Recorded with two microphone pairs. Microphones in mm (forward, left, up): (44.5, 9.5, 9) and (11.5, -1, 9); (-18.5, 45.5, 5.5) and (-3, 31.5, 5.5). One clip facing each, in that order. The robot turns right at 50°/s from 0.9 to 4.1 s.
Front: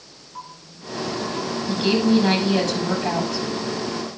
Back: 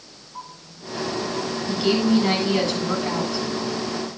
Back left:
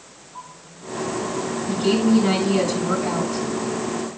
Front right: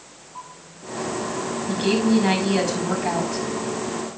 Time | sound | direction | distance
1.7 | a woman speaking | 55° right | 5.5 m